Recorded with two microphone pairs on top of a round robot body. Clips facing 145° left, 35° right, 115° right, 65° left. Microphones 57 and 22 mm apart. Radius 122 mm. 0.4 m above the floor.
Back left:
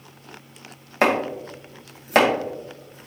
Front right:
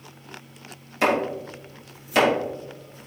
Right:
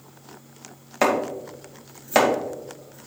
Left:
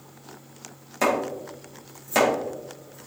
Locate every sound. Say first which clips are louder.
1.0 s chopping: back left 2 dB, right 2 dB; 175° right, 2.5 m